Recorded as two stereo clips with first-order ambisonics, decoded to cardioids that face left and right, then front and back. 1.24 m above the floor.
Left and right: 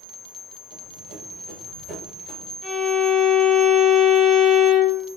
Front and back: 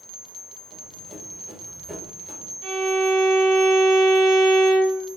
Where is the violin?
160° right, 2.5 m.